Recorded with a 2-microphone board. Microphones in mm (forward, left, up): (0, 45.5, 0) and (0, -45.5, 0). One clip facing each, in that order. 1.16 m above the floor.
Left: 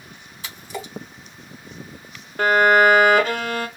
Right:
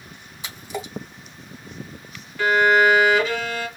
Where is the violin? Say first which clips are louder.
Left 2 dB; 50° left (ahead or behind), 0.6 m.